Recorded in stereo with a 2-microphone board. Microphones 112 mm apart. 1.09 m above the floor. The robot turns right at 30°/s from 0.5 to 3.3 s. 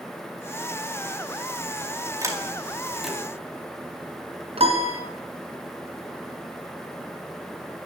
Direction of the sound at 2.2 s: 30° right (ahead or behind).